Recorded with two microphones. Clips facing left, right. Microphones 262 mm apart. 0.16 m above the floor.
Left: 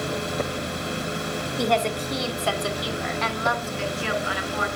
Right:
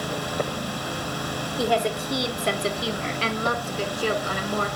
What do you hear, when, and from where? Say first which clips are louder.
1.6 s a woman speaking: right 1 dB; centre (ahead or behind), 1.2 m; by 4.7 s 45° right (ahead or behind), 1.6 m